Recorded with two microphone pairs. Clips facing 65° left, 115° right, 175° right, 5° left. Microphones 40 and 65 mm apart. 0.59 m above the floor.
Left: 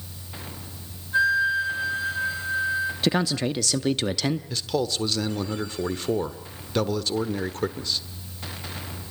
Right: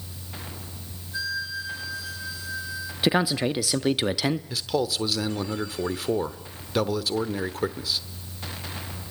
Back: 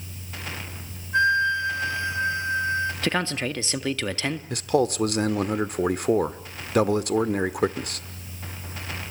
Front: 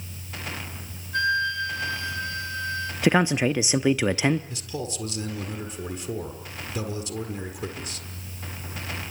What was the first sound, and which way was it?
A flute, 120° left.